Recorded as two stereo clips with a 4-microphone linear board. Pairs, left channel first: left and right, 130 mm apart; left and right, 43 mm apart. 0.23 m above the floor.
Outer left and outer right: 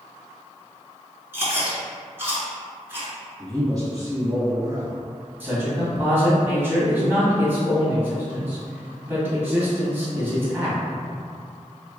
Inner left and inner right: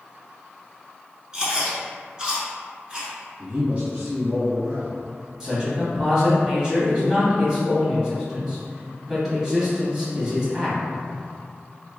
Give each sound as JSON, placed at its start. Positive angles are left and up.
{"t": 1.3, "sound": "chewing", "side_deg": -20, "distance_m": 1.0}
{"t": 3.4, "sound": "a man speaking", "side_deg": -30, "distance_m": 1.3}
{"t": 5.4, "sound": "a man speaking", "side_deg": -15, "distance_m": 1.2}